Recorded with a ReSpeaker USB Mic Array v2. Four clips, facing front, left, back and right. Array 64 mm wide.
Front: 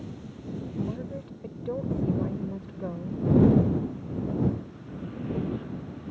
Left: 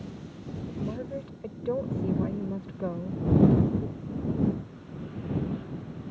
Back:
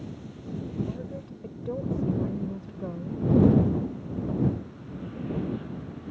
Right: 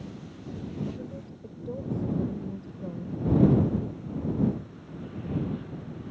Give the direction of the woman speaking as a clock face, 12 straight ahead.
9 o'clock.